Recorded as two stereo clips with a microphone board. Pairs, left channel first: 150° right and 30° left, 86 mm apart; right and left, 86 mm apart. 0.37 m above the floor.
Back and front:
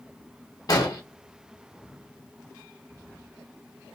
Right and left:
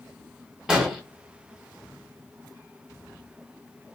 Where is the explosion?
170° left, 0.9 m.